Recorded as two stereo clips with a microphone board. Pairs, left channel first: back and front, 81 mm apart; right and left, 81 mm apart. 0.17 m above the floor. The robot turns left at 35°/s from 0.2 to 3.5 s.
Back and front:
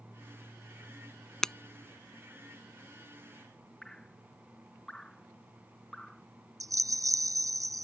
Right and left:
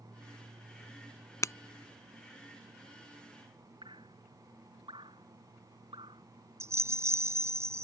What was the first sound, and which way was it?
Breaking glass, 100° right.